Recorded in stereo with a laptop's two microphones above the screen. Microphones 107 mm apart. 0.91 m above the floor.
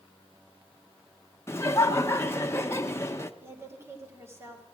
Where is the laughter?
25° left (ahead or behind), 0.9 m.